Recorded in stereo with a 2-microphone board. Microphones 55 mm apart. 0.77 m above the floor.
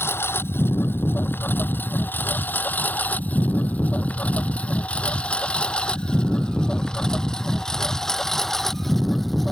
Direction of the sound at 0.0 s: 50° left (ahead or behind).